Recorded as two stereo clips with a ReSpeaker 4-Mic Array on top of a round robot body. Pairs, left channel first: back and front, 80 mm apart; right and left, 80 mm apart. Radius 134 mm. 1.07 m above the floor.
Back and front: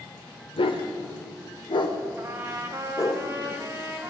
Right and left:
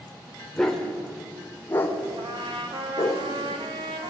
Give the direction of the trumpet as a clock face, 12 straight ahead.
10 o'clock.